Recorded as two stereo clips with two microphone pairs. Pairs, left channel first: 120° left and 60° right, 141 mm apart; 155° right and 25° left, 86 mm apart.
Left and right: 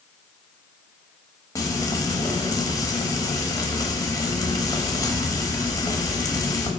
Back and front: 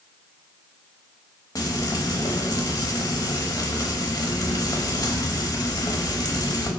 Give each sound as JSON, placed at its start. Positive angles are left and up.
{"t": 1.6, "sound": "frying", "azimuth_deg": 180, "distance_m": 0.8}